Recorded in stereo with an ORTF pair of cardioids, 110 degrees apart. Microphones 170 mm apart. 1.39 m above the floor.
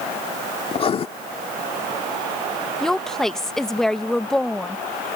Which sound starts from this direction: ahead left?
Writing, at 0.7 s.